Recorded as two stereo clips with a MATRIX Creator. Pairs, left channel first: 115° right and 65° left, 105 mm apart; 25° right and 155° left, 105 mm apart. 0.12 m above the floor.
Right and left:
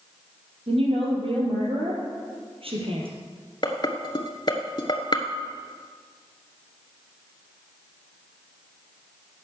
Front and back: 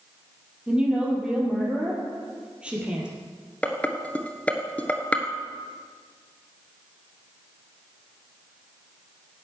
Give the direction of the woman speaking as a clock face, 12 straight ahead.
9 o'clock.